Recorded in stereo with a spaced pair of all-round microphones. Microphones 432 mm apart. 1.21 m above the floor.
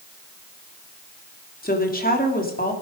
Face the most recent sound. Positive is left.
turn(degrees=20)  # may be behind; listen again after turning